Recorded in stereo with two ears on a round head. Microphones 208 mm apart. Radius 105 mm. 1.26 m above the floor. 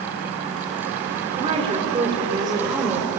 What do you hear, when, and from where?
1.4 s a woman speaking: 25° right (ahead or behind), 4.5 m; by 3.1 s 15° right (ahead or behind), 5.5 m